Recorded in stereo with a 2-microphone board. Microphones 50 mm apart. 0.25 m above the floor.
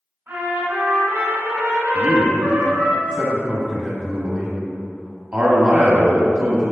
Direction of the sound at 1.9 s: 35° right (ahead or behind).